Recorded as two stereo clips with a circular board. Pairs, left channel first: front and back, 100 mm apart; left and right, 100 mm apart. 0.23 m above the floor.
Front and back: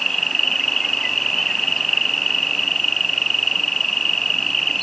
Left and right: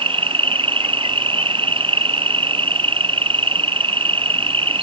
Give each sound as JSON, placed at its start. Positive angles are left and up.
{"t": 0.0, "sound": "an insect", "azimuth_deg": -85}